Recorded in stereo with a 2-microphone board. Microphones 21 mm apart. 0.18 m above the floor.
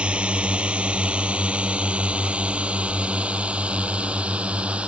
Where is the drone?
65° right (ahead or behind); by 4.9 s 75° right (ahead or behind).